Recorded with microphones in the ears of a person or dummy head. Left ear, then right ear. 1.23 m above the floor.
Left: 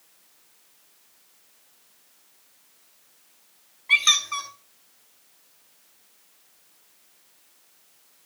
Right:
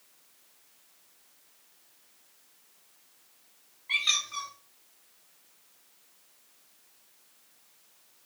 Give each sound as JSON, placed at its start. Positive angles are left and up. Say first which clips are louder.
{"t": 3.9, "sound": "a squeak", "louder": "left 8 dB", "side_deg": 35, "distance_m": 2.0}